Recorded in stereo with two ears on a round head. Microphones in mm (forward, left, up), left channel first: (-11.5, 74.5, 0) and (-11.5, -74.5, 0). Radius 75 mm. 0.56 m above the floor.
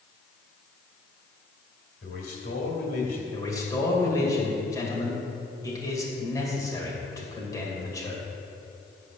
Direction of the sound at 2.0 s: 65° left (ahead or behind).